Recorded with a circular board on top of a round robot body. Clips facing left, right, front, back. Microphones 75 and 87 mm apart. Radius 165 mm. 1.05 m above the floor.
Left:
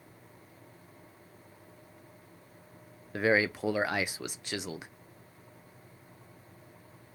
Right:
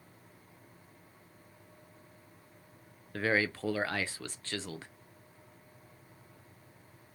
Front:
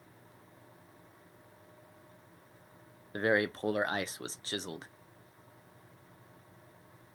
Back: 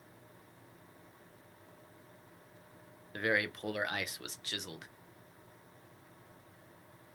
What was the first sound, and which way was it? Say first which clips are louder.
A man speaking: left 4 dB, front 4 dB; 25° left.